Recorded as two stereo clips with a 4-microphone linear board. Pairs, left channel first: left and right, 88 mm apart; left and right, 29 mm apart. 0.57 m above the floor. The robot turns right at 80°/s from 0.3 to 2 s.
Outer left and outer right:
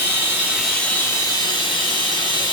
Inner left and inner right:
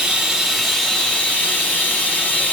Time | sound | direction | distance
0.0 | running water | 25° right | 1.1 m